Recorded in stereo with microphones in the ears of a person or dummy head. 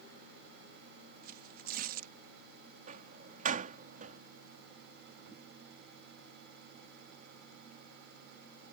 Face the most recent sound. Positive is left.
turn(degrees=-40)  # may be behind; listen again after turning